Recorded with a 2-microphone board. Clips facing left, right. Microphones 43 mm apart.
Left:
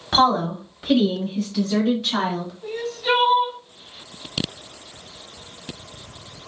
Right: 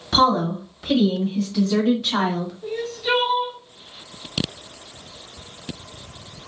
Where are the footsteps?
I don't hear footsteps.